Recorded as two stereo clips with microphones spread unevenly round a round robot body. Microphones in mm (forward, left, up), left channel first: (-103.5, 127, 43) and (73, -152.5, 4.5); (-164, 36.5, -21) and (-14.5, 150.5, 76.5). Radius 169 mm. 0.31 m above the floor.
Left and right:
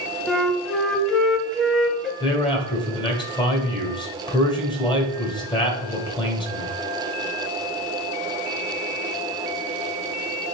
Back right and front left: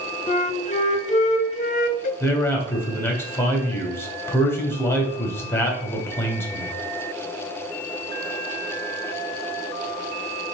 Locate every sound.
0.3 s a flute: 145° right, 0.7 m
2.2 s a man speaking: 160° right, 1.9 m